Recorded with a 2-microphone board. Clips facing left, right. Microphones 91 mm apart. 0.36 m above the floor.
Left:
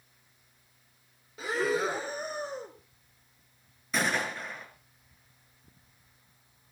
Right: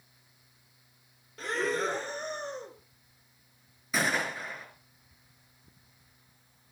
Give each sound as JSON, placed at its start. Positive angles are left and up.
{"t": 1.4, "sound": "breathing", "side_deg": 5, "distance_m": 1.6}
{"t": 3.9, "sound": "a gunshot", "side_deg": 0, "distance_m": 6.0}